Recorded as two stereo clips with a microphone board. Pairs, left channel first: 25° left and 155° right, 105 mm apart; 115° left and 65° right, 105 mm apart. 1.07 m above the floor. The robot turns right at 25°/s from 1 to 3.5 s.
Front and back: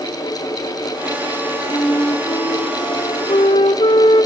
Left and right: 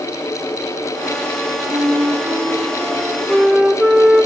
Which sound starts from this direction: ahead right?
A flute, at 1.7 s.